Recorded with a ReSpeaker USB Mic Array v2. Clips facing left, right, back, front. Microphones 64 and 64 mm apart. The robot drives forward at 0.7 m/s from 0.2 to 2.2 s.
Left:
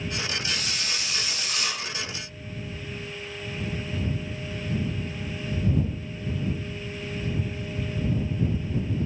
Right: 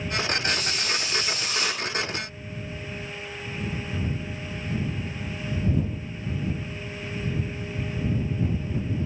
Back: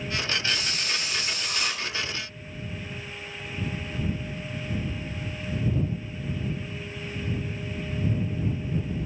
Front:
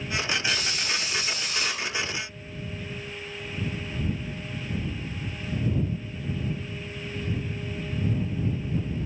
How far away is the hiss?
About 1.5 m.